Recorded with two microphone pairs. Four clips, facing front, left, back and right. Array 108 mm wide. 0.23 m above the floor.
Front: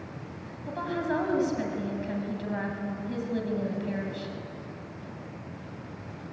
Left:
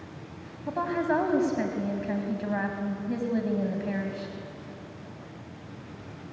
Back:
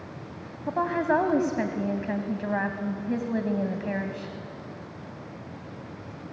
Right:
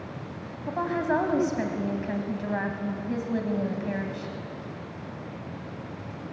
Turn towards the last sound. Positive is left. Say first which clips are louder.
# even, back 6 dB
turn(degrees=-175)